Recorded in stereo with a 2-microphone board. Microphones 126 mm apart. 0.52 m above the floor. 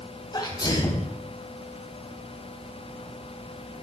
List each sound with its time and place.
0.3 s a sneeze: 35° left (ahead or behind), 3.5 m